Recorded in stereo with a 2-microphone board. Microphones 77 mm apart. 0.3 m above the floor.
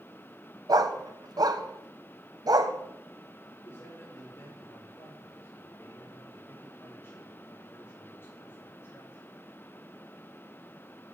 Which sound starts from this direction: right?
A dog barking, at 0.7 s.